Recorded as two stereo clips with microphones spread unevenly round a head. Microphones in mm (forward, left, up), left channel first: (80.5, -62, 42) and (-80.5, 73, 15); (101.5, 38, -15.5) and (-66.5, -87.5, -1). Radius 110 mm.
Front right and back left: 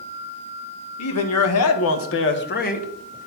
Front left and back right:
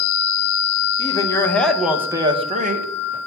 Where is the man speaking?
30° right, 2 m; by 2.9 s 100° right, 1.6 m.